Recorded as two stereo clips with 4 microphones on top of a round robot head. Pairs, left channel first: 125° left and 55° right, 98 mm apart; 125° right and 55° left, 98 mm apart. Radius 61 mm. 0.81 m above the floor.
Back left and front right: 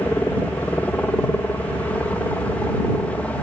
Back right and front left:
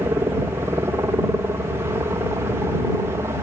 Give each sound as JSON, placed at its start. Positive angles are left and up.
{"t": 0.0, "sound": "a helicopter", "azimuth_deg": 75}